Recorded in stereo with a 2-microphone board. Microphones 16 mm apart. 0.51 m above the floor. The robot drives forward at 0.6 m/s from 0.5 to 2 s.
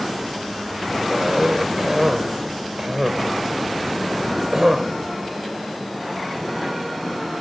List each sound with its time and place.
1.1 s a cough: 40° right (ahead or behind), 2 m; by 4.9 s 35° right (ahead or behind), 2.5 m